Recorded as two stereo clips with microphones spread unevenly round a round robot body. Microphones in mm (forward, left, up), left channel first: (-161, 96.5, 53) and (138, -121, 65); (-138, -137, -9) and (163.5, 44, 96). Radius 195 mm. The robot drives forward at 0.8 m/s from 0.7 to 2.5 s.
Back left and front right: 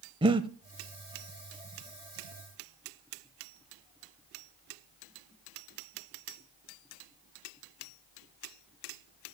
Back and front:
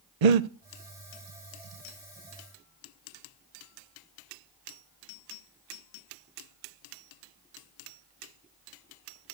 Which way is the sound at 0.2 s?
40° left.